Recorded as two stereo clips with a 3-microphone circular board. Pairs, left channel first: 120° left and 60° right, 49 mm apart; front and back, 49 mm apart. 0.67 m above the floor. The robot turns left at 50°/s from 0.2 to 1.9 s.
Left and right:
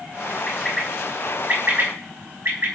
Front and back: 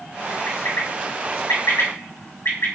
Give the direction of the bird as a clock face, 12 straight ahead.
10 o'clock.